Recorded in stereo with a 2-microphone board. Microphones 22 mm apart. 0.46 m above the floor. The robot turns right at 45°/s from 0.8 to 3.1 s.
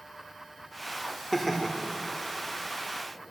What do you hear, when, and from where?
1.3 s laughter: 10° left (ahead or behind), 0.9 m; by 1.7 s centre (ahead or behind), 0.9 m